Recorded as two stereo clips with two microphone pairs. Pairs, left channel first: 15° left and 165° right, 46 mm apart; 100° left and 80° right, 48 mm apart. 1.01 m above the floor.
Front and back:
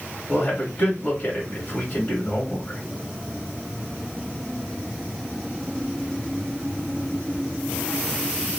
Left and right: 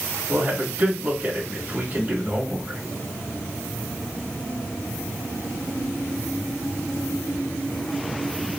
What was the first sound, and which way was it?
A man speaking, 30° right.